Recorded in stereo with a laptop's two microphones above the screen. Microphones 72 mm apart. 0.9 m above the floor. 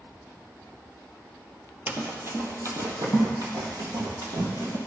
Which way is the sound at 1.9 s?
25° right (ahead or behind).